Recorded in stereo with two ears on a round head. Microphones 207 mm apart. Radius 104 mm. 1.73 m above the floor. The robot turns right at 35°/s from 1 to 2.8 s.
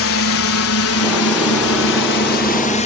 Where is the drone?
60° left (ahead or behind); by 2.9 s 30° left (ahead or behind).